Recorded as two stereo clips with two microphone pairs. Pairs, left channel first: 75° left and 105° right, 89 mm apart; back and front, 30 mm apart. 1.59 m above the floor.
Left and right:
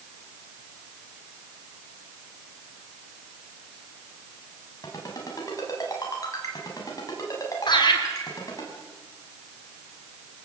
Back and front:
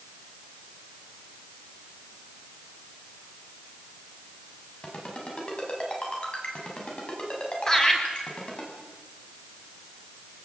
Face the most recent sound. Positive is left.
turn(degrees=110)